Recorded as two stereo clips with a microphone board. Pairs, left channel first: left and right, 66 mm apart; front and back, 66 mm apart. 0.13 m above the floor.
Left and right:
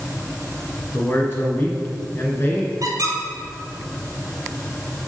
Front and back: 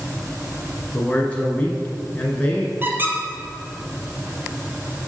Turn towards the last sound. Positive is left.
turn(degrees=-120)